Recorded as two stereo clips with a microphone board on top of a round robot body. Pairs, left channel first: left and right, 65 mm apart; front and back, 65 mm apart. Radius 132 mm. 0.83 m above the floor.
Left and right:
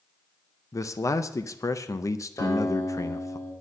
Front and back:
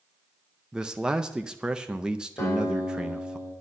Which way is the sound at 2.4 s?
55° left.